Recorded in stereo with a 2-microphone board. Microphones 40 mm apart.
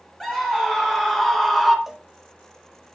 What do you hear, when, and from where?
0.2 s a scream: 15° left (ahead or behind), 4.5 m; by 1.8 s 10° left (ahead or behind), 2.5 m
1.9 s a cowbell: centre (ahead or behind), 1.5 m